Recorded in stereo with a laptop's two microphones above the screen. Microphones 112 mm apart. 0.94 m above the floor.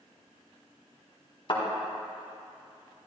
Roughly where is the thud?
Left.